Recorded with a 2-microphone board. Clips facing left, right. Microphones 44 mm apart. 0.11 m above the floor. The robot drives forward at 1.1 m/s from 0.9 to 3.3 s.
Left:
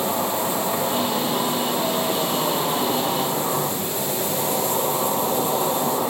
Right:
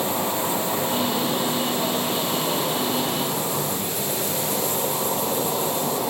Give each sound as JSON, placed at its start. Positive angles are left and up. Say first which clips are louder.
{"t": 0.0, "sound": "an insect", "louder": "left 1 dB", "side_deg": 20, "distance_m": 7.0}